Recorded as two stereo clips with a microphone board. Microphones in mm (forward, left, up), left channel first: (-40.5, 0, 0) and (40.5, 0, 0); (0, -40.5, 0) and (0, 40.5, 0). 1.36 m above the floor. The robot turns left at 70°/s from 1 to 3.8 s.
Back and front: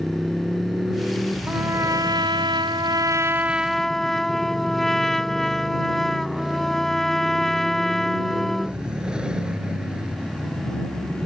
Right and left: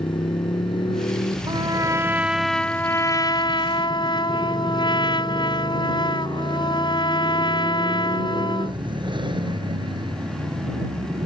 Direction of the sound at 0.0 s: 85° right.